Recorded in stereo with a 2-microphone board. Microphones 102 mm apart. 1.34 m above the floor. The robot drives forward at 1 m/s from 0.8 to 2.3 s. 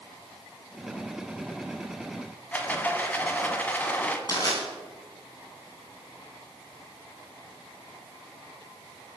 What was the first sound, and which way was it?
A rattle, 15° left (ahead or behind).